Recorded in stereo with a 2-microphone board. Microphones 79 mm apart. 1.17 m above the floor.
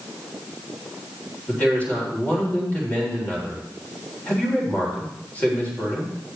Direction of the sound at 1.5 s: 20° left (ahead or behind).